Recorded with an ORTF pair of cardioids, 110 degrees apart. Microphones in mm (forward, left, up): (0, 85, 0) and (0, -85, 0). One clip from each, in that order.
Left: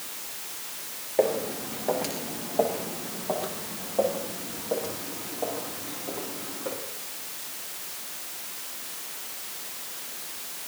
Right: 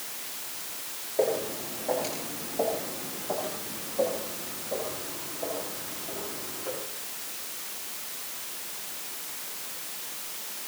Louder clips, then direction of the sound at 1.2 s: Left 2 dB; 40° left.